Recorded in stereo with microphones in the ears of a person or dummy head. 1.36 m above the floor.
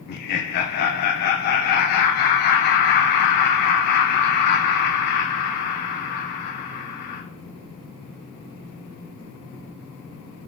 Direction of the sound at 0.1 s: 55° left (ahead or behind).